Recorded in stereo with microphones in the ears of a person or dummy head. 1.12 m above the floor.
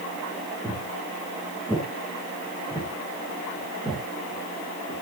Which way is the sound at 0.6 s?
10° left (ahead or behind).